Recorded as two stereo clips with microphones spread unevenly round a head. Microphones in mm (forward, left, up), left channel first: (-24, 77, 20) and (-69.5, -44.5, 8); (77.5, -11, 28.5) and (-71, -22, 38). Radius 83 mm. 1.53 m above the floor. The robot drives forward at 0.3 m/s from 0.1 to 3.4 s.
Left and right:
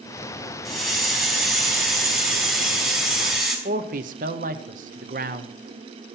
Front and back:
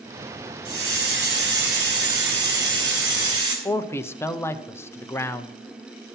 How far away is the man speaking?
About 0.8 m.